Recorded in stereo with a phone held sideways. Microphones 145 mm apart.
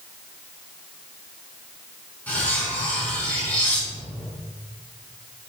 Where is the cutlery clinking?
10° left (ahead or behind), 5.5 m.